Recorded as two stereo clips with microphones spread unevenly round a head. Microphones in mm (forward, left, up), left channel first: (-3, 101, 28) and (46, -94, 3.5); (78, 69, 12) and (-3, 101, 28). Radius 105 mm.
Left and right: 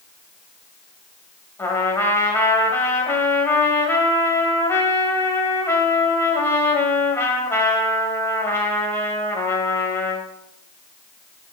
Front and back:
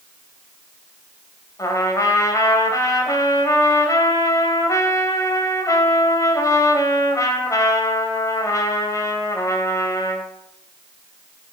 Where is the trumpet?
30° left, 1.8 m.